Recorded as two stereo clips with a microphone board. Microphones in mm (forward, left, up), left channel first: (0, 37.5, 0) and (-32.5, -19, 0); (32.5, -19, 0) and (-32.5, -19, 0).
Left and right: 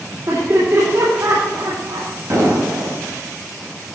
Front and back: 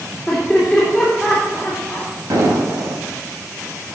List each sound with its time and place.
0.3 s laughter: 90° right, 3 m
2.3 s an explosion: 155° right, 3.5 m